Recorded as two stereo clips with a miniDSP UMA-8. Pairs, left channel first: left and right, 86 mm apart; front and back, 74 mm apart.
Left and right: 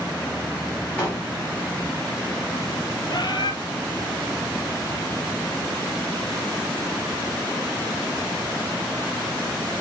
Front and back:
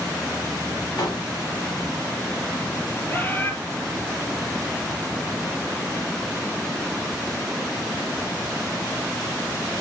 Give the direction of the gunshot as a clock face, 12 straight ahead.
11 o'clock.